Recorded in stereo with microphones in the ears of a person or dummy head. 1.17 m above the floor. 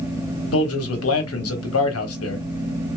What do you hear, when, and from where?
0.5 s a man speaking: 75° left (ahead or behind), 1.3 m